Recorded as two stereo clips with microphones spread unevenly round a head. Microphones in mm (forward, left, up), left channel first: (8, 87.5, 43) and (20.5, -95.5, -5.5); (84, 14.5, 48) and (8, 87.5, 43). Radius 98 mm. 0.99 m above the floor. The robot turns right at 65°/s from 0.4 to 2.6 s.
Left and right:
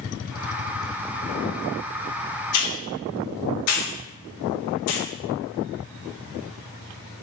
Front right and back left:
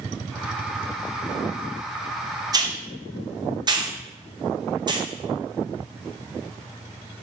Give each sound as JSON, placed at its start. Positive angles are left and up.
{"t": 2.5, "sound": "a hiss", "azimuth_deg": 80, "distance_m": 0.6}